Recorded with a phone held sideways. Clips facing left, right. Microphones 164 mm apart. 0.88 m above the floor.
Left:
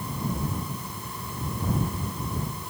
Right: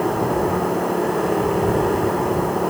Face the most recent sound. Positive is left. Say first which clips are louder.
# right 13 dB
turn(degrees=-75)  # may be behind; listen again after turning